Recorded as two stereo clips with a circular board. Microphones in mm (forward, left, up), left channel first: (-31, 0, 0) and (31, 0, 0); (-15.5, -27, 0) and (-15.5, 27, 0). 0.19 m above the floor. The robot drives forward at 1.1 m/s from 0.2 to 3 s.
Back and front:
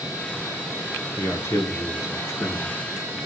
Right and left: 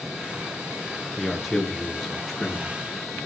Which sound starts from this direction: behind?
A man speaking, at 1.2 s.